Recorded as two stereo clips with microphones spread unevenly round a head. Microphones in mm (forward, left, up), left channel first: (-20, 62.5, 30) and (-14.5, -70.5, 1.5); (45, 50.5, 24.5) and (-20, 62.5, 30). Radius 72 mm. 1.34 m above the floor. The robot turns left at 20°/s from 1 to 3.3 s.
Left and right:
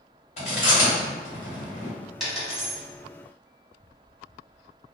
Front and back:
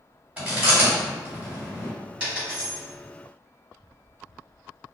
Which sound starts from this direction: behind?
A dropped coin, at 2.2 s.